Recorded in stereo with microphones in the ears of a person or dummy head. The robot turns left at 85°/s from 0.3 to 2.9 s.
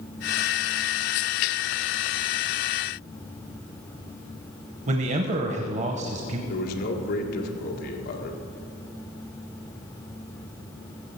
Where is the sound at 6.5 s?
50° left (ahead or behind), 1.7 m.